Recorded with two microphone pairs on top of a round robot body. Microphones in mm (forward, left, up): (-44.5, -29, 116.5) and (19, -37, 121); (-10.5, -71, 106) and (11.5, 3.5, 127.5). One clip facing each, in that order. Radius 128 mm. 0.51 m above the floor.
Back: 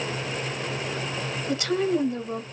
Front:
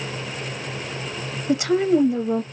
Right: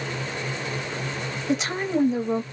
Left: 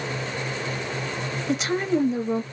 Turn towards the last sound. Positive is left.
turn(degrees=-65)